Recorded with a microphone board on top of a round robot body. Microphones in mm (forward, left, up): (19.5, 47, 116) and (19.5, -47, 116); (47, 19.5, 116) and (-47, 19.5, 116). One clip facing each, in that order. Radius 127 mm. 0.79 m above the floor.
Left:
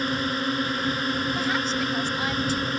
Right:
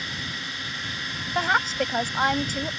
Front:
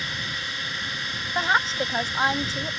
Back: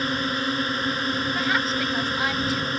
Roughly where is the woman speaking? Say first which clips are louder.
Right 2 dB, front 6 dB; ahead right.